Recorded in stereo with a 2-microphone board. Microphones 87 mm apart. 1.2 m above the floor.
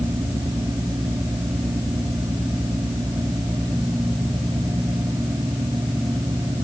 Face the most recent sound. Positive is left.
No sound to turn to.